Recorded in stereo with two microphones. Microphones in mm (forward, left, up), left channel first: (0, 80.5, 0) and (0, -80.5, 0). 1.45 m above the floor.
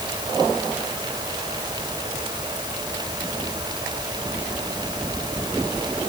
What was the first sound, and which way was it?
Only background noise.